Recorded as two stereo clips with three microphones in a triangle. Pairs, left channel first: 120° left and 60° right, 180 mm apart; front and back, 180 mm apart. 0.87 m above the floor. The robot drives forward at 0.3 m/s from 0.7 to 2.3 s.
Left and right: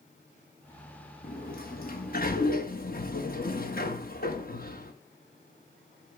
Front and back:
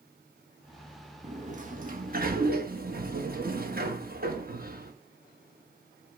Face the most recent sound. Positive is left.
turn(degrees=150)